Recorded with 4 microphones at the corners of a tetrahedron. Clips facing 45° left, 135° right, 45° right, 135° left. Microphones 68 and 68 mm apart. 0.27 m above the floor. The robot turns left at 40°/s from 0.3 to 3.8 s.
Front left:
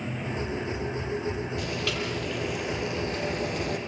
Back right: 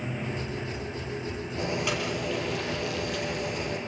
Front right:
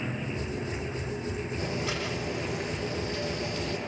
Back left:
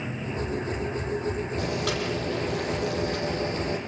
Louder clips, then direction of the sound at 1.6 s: Back right 1 dB, back left 3 dB; 160° left.